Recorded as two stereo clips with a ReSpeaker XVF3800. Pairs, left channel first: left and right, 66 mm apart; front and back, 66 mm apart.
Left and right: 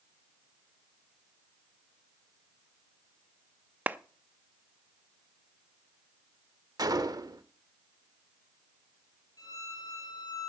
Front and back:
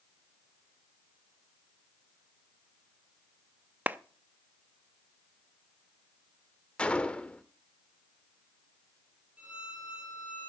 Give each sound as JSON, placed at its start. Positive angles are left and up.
{"t": 3.9, "sound": "a clap", "azimuth_deg": -135, "distance_m": 0.6}
{"t": 6.8, "sound": "a gunshot", "azimuth_deg": -75, "distance_m": 1.0}
{"t": 9.4, "sound": "a violin", "azimuth_deg": 110, "distance_m": 5.0}